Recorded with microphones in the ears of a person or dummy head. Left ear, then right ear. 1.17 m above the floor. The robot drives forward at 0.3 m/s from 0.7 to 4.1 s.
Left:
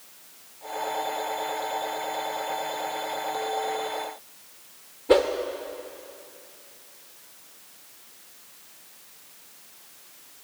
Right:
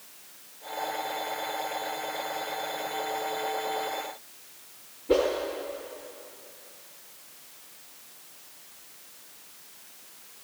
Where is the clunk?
I don't hear a clunk.